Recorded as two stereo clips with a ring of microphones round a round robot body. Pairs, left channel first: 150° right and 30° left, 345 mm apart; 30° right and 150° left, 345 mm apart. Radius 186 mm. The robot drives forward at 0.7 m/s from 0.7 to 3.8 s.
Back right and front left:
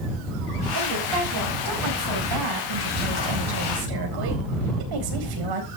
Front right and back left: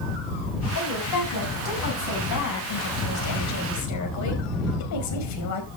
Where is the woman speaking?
10° left, 6 m.